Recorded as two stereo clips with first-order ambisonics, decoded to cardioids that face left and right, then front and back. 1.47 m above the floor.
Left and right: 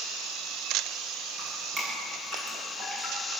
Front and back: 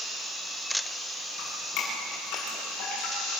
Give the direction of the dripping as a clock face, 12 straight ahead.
1 o'clock.